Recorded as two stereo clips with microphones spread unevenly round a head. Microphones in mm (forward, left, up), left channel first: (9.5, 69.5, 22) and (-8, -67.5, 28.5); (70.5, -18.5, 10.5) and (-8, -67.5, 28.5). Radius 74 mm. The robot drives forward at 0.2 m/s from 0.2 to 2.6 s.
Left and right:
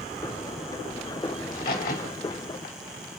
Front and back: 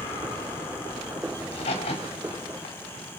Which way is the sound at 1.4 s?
55° left.